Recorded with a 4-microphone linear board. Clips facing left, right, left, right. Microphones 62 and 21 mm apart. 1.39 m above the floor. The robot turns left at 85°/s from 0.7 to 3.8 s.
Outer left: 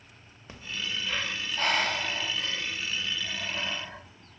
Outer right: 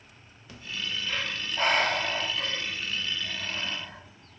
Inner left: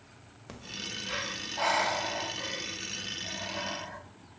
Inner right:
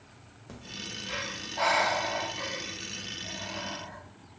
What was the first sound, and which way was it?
Breathing, 30° left (ahead or behind).